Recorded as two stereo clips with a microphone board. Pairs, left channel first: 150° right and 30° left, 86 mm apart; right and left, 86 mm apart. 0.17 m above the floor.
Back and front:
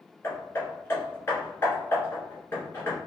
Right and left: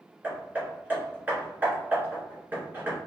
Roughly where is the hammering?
Behind left.